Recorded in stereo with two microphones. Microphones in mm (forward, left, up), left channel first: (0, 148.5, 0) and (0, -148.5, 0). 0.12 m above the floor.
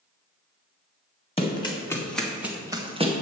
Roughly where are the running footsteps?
Centre.